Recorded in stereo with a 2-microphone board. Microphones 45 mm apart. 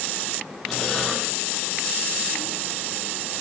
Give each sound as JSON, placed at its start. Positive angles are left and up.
{"t": 0.7, "sound": "breathing", "side_deg": 10, "distance_m": 7.0}